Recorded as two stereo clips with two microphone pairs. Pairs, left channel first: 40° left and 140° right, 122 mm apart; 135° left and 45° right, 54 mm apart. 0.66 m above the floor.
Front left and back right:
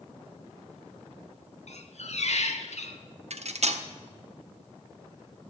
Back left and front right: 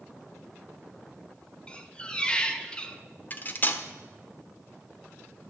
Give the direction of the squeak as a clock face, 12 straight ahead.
10 o'clock.